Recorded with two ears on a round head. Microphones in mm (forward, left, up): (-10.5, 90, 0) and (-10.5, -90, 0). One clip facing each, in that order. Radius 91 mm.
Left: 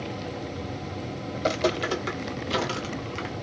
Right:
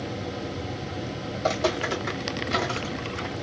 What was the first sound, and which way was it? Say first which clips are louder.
Footsteps: even; 35° left (ahead or behind).